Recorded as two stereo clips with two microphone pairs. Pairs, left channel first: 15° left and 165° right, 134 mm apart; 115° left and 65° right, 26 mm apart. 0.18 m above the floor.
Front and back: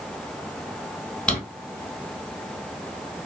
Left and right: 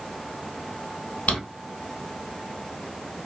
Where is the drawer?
100° left, 1.2 m.